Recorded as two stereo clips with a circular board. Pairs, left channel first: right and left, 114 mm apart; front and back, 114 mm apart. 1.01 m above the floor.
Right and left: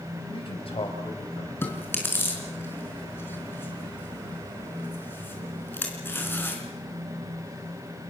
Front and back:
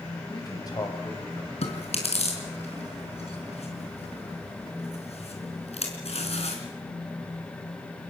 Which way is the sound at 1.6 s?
20° right.